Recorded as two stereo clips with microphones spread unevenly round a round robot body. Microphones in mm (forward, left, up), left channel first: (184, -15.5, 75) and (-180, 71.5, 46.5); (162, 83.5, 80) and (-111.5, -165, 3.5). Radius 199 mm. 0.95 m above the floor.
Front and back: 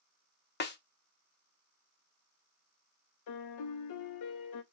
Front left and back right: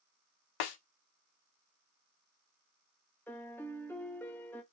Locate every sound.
0.6 s a snare drum: 45° left, 0.6 m
3.3 s a piano: 50° right, 0.6 m